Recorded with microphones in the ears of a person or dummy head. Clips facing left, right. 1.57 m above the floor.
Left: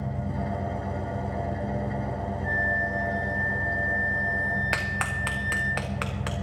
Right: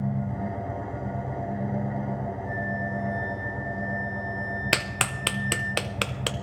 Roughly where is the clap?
Right.